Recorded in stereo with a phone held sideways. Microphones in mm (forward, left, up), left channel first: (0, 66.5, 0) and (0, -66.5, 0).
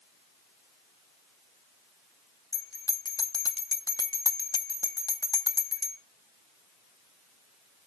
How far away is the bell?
About 0.8 m.